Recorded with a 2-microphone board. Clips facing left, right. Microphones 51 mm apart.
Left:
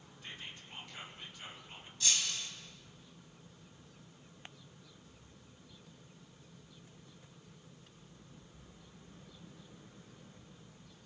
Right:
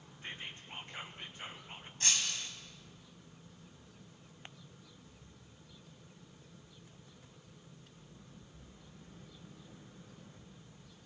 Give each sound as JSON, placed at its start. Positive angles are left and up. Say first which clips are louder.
{"t": 0.2, "sound": "whispering", "louder": "right 3 dB", "side_deg": -35, "distance_m": 1.8}
{"t": 2.0, "sound": "breaking glass", "louder": "even", "side_deg": -45, "distance_m": 3.5}